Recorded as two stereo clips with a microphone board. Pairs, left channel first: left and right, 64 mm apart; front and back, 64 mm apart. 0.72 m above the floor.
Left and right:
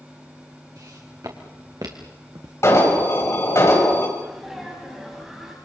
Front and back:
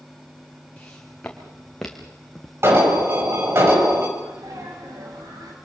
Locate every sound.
0.8 s footsteps: 70° right, 4 m; by 2.5 s 90° right, 2.5 m
2.6 s an alarm: 135° left, 5 m
4.2 s a sneeze: 175° right, 6.5 m